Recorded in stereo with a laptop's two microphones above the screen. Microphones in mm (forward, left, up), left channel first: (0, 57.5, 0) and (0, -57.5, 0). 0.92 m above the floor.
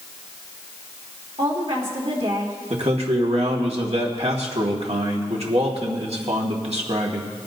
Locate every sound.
1.4 s a woman speaking: 65° right (ahead or behind), 3 m
2.7 s a man speaking: 70° right (ahead or behind), 2 m